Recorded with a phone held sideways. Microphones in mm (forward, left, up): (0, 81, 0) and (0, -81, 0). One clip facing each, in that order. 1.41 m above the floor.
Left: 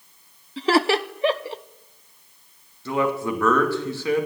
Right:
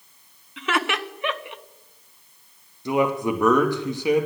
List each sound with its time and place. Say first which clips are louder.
0.6 s laughter: left 7 dB; 35° left (ahead or behind), 0.6 m
2.9 s a man speaking: right 2 dB; 15° right (ahead or behind), 2 m